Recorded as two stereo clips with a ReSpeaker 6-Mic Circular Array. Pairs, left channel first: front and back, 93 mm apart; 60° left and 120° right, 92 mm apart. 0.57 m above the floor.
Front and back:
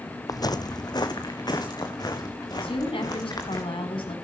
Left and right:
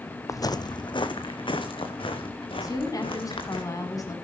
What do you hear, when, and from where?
0.3 s footsteps: 25° left, 0.8 m; by 3.6 s 45° left, 4.5 m
2.6 s a woman speaking: 10° left, 4 m